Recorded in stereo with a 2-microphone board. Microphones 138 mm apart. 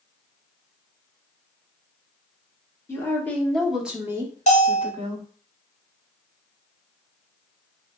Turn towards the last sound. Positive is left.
turn(degrees=60)  # may be behind; listen again after turning